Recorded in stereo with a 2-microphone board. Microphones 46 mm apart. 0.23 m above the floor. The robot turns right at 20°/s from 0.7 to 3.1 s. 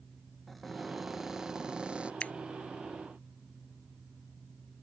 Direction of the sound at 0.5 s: 5° left (ahead or behind).